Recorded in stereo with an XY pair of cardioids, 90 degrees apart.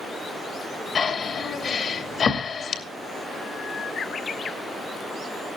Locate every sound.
0.9 s breathing: 60° left, 2.5 m